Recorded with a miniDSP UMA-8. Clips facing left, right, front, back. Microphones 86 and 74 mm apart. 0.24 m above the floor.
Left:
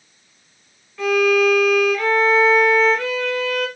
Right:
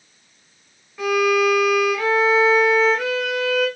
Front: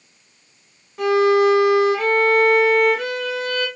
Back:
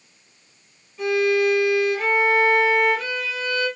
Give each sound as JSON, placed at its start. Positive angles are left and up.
{"t": 1.0, "sound": "a violin", "azimuth_deg": -10, "distance_m": 0.8}